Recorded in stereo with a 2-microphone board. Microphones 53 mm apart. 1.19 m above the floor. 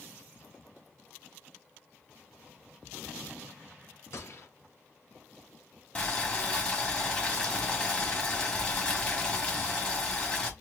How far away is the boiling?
About 1.9 m.